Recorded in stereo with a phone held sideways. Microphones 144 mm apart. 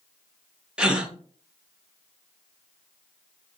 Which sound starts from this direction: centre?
A gasp, at 0.8 s.